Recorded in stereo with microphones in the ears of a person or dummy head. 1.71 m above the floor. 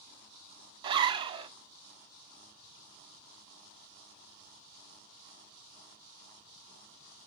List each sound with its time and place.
0.8 s a zipper: 25° right (ahead or behind), 0.6 m